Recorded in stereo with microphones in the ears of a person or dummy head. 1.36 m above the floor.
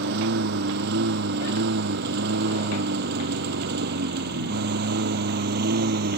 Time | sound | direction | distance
0.0 | a lawn mower | 70° right (ahead or behind) | ?